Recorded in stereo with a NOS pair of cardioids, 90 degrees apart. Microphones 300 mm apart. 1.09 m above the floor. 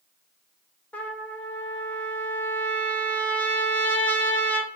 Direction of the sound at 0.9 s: 5° left.